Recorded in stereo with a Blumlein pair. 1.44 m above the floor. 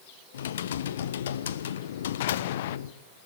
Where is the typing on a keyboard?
60° left, 0.9 m.